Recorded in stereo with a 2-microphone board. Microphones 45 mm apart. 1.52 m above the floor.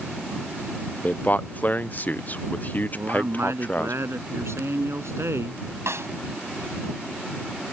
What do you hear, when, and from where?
1.0 s a man speaking: 40° left (ahead or behind)
2.9 s a man speaking: 85° right
5.9 s a snare drum: 80° right